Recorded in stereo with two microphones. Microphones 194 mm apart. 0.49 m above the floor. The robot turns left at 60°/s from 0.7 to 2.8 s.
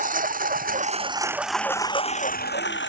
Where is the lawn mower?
45° right (ahead or behind); by 2.9 s 75° left (ahead or behind).